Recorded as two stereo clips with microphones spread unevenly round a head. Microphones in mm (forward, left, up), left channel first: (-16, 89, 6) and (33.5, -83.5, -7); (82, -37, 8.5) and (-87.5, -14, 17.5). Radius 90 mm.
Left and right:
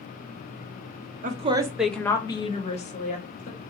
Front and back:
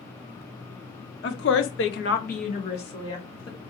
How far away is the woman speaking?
About 0.6 m.